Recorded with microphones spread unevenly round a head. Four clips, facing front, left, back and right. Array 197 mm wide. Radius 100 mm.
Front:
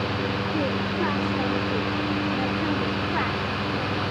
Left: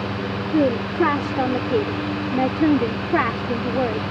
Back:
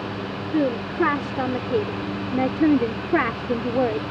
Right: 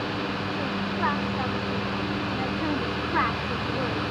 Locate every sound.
0.5 s a woman speaking: 110° left; by 4.0 s 150° left